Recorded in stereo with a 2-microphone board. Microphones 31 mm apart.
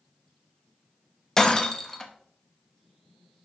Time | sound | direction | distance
1.4 | breaking glass | 20° left (ahead or behind) | 0.9 m